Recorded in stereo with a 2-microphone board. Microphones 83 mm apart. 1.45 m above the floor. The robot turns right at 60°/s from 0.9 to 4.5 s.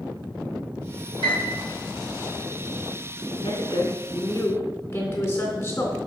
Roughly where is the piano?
Right.